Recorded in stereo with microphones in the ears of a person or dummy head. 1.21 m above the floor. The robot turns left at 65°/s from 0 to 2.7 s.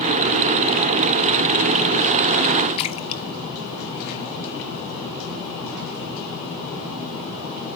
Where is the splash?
35° left (ahead or behind), 1.0 m.